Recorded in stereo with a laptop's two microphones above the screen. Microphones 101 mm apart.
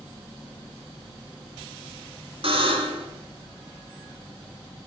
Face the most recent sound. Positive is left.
turn(degrees=-65)  # may be behind; listen again after turning